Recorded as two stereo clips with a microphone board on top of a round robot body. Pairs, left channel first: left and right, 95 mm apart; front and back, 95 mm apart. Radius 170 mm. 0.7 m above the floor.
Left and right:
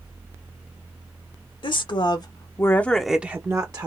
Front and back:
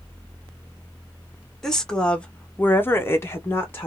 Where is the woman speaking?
85° left, 1.1 m; by 3.9 s 60° right, 0.9 m.